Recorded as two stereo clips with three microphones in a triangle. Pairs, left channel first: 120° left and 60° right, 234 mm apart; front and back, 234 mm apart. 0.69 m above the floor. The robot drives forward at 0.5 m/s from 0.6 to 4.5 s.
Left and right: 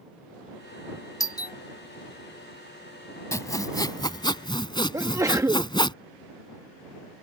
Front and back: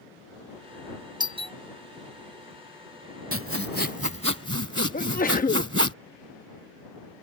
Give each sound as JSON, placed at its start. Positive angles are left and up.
{"t": 1.2, "sound": "a doorbell", "azimuth_deg": 160}
{"t": 3.3, "sound": "sawing", "azimuth_deg": -165}
{"t": 4.9, "sound": "a sneeze", "azimuth_deg": 10}